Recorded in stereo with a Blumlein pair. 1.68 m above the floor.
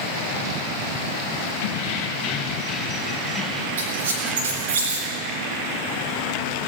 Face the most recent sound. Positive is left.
turn(degrees=-60)